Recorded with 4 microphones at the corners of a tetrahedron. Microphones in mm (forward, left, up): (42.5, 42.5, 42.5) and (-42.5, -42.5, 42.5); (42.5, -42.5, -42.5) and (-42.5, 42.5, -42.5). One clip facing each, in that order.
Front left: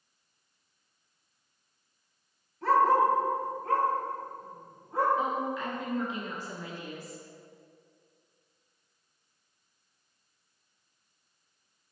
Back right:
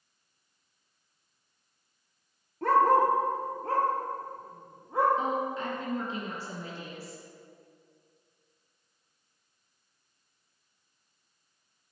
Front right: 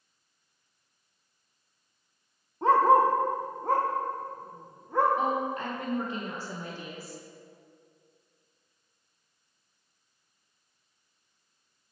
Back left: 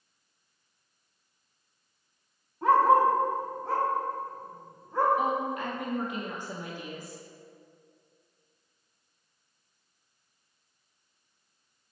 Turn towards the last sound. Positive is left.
turn(degrees=-85)